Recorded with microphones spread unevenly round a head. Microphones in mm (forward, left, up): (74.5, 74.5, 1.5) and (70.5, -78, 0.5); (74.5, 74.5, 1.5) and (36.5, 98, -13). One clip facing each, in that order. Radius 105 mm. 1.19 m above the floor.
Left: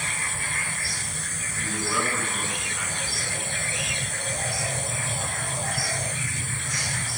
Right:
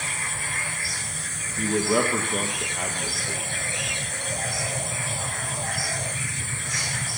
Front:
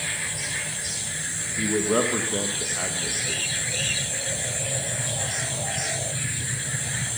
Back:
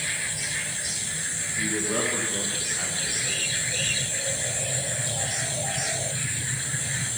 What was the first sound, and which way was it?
A man speaking, 50° right.